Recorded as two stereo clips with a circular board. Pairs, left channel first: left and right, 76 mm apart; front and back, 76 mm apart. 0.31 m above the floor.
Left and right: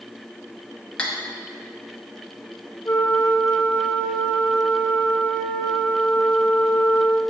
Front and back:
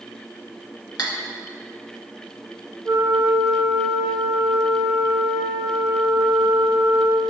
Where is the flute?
150° left, 0.5 m.